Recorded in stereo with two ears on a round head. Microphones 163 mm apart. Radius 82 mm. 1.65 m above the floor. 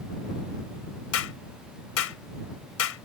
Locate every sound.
1.1 s a clap: 80° left